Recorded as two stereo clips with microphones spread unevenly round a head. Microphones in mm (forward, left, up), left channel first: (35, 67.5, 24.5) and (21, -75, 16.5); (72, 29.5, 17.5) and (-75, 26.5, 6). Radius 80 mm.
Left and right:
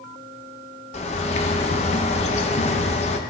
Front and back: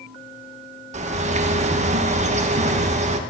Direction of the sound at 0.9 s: 140° left.